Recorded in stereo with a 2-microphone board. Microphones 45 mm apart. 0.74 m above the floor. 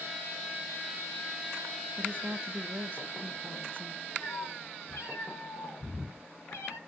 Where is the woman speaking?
45° right (ahead or behind), 0.6 m.